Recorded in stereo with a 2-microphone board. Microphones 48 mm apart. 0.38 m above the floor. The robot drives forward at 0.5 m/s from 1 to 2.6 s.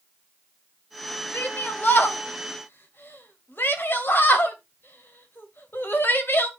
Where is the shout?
35° left (ahead or behind), 1.9 m; by 6.5 s 45° left (ahead or behind), 1.5 m.